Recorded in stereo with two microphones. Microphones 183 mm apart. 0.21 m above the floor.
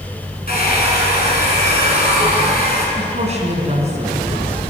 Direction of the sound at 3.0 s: 35° right (ahead or behind).